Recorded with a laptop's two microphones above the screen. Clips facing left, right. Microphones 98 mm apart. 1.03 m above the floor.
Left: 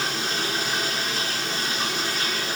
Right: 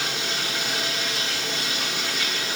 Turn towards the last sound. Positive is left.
turn(degrees=40)  # may be behind; listen again after turning